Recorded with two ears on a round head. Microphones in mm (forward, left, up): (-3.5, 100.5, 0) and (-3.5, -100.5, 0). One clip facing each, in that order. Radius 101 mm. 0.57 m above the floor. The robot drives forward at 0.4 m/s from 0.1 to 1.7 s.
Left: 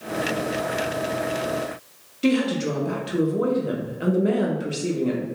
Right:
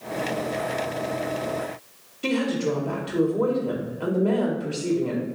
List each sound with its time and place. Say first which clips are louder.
2.2 s a woman speaking: left 3 dB; 20° left (ahead or behind), 0.7 m